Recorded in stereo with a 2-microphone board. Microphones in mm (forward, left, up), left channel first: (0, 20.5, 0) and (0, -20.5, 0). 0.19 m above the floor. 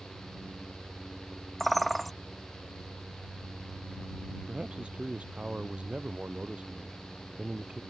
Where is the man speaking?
25° right (ahead or behind).